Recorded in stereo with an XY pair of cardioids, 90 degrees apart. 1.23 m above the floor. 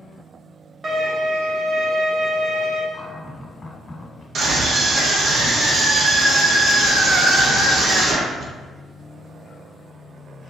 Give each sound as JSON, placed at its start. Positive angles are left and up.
{"t": 0.8, "sound": "a violin", "azimuth_deg": -50, "distance_m": 0.9}
{"t": 2.9, "sound": "a cupboard door", "azimuth_deg": 35, "distance_m": 1.2}
{"t": 4.3, "sound": "a scream", "azimuth_deg": -65, "distance_m": 0.9}